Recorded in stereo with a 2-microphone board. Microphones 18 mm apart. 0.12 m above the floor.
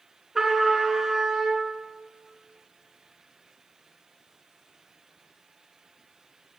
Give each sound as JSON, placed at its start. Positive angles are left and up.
{"t": 0.3, "sound": "a trumpet", "side_deg": -20, "distance_m": 1.4}